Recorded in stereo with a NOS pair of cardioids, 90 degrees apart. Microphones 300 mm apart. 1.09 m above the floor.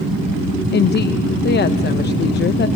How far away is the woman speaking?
About 0.8 m.